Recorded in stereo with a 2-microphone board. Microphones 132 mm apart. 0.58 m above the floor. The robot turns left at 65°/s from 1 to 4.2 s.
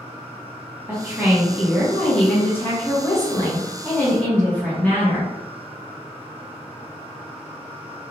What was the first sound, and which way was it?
A woman speaking, 15° right (ahead or behind).